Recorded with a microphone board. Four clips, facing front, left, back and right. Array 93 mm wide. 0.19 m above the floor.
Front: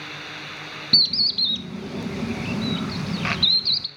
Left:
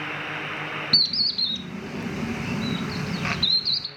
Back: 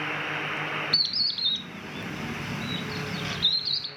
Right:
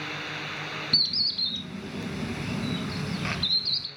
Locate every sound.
0.9 s a bird: 20° left, 0.6 m